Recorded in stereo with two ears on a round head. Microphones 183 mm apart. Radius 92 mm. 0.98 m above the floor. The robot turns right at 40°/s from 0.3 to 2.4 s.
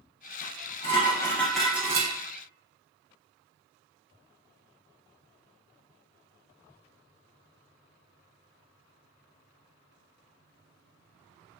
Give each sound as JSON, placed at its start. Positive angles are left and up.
{"t": 0.4, "sound": "dishes clattering", "azimuth_deg": 135, "distance_m": 0.7}